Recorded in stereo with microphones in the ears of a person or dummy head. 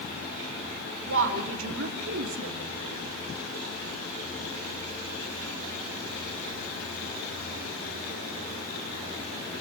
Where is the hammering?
I don't hear hammering.